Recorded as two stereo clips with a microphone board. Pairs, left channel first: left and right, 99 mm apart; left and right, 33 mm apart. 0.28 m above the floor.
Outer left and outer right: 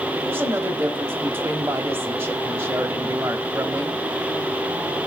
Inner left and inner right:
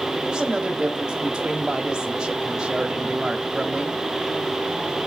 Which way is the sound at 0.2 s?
25° right (ahead or behind).